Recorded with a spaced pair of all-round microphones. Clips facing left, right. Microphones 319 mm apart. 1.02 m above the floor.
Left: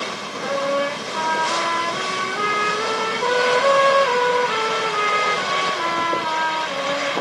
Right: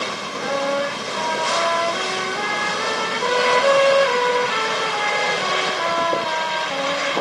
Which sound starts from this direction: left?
A trumpet, at 0.4 s.